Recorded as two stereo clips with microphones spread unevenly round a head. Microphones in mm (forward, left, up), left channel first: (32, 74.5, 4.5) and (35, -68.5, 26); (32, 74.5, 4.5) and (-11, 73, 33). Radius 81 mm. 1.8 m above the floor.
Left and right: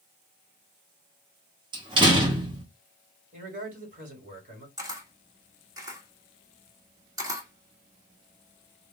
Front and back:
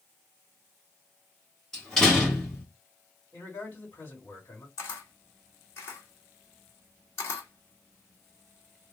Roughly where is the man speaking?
Ahead right.